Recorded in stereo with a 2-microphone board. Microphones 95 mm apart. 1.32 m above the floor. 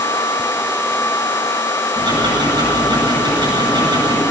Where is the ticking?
50° right (ahead or behind), 9.5 m.